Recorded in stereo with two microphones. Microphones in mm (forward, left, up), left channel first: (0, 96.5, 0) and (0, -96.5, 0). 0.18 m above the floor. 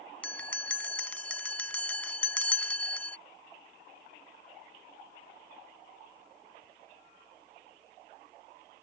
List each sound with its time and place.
0.2 s a bell: 5° left (ahead or behind)